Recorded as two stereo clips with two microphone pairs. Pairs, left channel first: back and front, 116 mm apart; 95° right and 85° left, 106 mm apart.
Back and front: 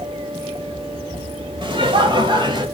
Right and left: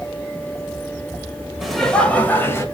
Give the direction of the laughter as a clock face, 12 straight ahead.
12 o'clock.